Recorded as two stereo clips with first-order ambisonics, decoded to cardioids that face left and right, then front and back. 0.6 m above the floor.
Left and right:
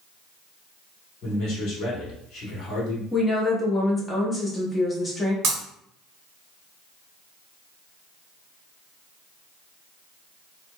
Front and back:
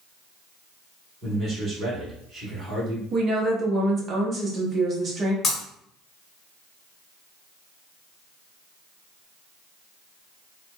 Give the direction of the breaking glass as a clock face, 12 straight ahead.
2 o'clock.